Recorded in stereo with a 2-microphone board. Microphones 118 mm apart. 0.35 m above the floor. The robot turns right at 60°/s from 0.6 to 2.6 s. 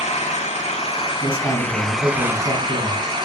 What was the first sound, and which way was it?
An engine running, 100° left.